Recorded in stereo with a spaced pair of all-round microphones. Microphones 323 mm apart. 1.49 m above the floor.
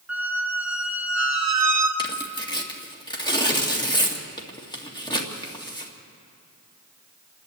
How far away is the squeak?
About 1.4 m.